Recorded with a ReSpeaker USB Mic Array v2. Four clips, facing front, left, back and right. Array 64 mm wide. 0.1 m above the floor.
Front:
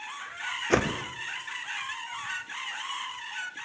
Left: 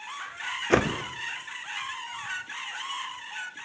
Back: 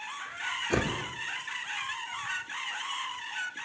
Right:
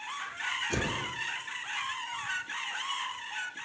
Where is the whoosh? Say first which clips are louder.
Left 14 dB, front 5 dB; 60° left, 2 m.